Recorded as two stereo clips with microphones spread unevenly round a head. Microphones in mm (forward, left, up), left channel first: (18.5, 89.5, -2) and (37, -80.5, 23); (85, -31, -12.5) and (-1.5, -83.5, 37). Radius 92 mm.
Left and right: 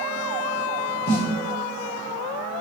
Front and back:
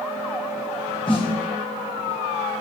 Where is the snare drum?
105° left, 2.0 m.